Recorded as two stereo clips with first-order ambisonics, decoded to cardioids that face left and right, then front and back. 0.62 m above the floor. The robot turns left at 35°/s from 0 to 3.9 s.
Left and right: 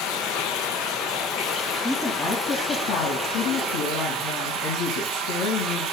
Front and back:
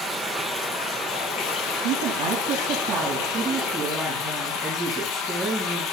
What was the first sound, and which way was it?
Running water, 105° left.